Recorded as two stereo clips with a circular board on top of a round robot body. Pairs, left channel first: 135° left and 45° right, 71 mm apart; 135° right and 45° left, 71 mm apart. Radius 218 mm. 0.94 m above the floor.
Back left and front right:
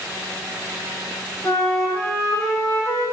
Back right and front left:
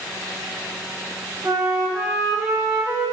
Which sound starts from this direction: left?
A flute, at 1.4 s.